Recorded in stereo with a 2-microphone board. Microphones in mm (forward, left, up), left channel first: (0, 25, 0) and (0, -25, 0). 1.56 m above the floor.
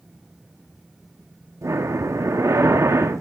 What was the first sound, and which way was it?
Breathing, 80° right.